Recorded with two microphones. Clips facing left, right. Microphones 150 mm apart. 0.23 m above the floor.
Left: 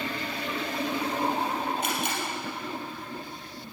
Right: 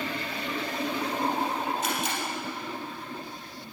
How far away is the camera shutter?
About 3.5 m.